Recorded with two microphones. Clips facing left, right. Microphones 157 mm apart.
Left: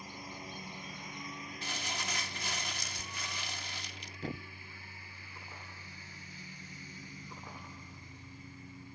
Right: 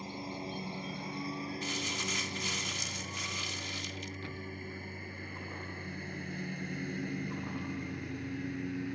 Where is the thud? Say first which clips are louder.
Left 2 dB; 45° left (ahead or behind).